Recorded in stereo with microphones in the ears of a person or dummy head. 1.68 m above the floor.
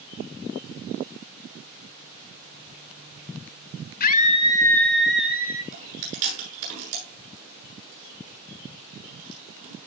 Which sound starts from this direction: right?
Chewing, at 5.7 s.